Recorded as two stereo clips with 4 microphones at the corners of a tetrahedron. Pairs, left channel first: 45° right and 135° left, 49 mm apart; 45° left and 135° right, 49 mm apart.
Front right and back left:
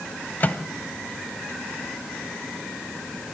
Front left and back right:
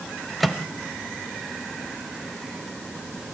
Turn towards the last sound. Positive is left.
turn(degrees=-45)